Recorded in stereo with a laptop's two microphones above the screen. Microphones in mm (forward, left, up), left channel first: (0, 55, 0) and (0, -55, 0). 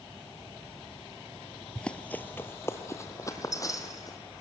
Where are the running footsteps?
5° left (ahead or behind), 1.2 m; by 4.2 s 35° left (ahead or behind), 3 m.